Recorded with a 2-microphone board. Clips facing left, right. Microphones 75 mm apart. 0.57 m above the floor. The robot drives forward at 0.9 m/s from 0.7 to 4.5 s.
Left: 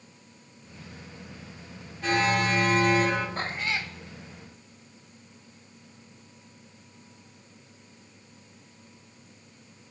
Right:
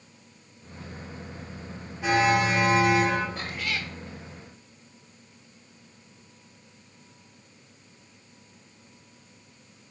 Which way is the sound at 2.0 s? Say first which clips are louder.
Right 3 dB; 10° right (ahead or behind).